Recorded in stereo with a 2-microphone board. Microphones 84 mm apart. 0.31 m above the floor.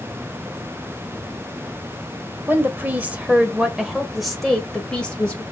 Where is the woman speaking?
25° right (ahead or behind), 1.5 m; by 5.4 s 15° left (ahead or behind), 1.6 m.